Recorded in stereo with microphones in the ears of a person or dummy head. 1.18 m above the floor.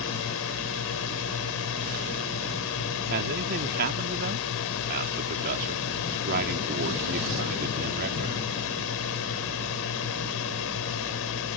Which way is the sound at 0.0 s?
65° left (ahead or behind).